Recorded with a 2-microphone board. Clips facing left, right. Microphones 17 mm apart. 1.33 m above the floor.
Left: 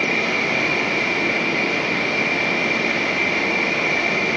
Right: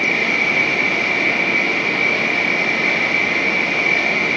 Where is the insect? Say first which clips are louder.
Right 3 dB; 70° right (ahead or behind), 1.3 m.